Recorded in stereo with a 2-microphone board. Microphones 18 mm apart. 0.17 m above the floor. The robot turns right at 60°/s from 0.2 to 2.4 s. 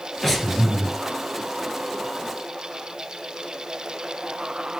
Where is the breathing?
170° left, 2.5 m; by 0.9 s 150° right, 2.5 m.